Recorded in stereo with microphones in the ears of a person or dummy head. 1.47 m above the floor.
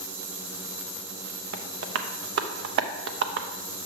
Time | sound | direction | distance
1.5 | tapping | 55° right (ahead or behind) | 0.6 m